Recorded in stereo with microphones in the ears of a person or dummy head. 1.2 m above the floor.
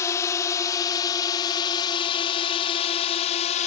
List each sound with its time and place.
0.0 s a drone: 15° left (ahead or behind); by 3.7 s 35° left (ahead or behind)